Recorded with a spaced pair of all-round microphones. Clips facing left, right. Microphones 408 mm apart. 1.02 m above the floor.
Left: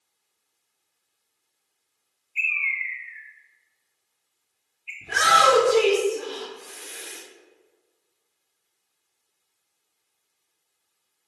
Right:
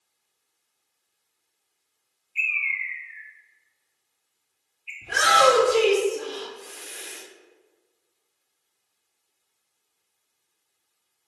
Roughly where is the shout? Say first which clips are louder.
Right 3 dB; left.